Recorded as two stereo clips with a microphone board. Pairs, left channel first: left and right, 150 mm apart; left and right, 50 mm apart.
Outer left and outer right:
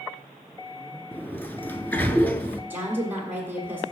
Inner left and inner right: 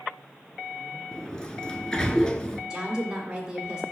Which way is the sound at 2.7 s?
15° right (ahead or behind).